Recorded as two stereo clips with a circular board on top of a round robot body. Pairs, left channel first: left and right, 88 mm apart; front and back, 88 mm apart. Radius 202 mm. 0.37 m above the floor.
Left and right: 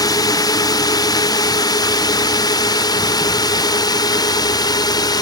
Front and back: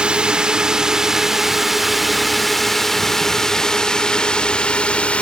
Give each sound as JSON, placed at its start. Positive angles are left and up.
{"t": 0.0, "sound": "a drone", "azimuth_deg": 105}